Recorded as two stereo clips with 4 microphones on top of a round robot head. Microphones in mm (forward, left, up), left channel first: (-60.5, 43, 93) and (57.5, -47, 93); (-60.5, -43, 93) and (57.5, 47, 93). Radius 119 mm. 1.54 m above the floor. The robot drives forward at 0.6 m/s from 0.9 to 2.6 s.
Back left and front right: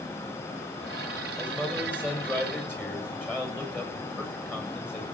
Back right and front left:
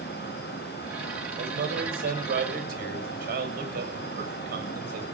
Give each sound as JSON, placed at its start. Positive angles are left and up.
{"t": 1.4, "sound": "a man speaking", "azimuth_deg": 60, "distance_m": 7.5}